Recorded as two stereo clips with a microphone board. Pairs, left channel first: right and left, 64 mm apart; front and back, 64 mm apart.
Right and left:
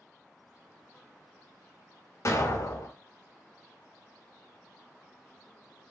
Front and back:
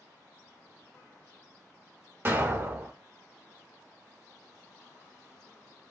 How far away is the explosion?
About 0.7 m.